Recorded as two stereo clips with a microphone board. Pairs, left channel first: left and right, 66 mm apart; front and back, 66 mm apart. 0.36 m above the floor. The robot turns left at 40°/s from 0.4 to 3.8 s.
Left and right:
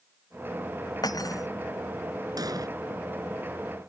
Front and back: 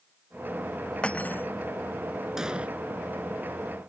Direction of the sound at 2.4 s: 100° right.